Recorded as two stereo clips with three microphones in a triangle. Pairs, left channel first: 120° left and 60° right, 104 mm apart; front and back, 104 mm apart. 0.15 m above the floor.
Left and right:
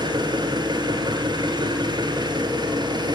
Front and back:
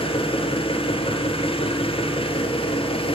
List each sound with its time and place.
0.0 s an engine running: 20° right, 1.5 m